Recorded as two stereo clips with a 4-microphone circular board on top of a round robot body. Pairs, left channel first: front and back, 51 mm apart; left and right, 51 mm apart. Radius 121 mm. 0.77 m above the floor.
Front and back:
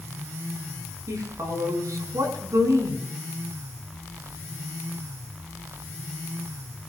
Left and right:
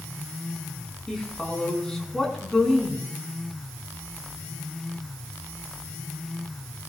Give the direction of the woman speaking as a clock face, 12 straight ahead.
6 o'clock.